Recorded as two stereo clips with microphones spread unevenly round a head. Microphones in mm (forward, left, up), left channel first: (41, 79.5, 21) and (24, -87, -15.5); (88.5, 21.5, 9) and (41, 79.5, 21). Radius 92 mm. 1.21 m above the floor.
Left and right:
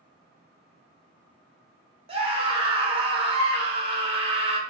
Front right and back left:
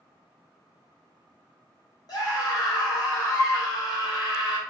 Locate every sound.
2.1 s a scream: 50° right, 0.9 m